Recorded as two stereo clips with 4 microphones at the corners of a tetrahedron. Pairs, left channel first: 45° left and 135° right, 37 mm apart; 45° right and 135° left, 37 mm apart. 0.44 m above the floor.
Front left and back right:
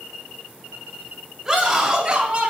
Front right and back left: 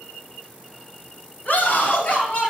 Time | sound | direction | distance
1.4 | a scream | 45° right | 2 m